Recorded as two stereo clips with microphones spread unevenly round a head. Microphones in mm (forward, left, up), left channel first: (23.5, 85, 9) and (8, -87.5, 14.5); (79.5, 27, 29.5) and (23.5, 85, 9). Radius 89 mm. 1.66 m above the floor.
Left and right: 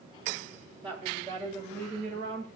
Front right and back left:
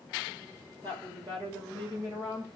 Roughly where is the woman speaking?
Behind.